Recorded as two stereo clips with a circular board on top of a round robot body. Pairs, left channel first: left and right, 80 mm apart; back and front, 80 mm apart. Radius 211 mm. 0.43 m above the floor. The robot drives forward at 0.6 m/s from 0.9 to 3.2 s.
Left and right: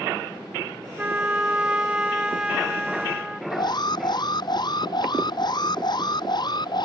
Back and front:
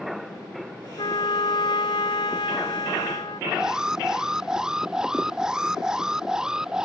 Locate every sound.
1.0 s a trumpet: 165° right; by 3.4 s 170° right
3.5 s an alarm: 80° left